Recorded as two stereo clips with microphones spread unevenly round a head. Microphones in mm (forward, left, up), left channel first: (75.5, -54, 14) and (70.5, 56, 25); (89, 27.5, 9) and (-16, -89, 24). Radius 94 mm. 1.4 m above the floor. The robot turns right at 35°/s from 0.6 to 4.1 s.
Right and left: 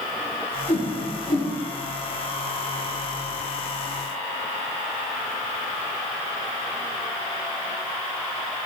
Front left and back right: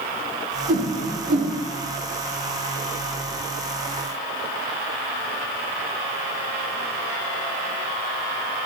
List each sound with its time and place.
0.7 s a whoosh: 145° right, 3.5 m; by 1.5 s 120° right, 3.5 m